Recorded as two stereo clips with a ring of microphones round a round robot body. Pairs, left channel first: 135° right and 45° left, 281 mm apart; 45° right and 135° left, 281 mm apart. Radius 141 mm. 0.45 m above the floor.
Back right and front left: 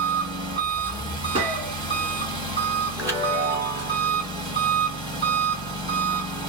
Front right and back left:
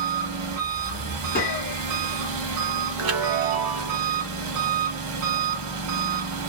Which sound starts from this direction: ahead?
A gunshot, at 1.4 s.